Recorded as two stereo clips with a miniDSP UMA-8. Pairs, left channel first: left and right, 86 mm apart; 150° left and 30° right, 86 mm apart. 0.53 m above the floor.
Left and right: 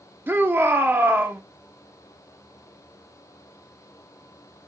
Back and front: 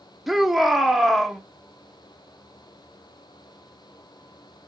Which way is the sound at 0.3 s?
115° right.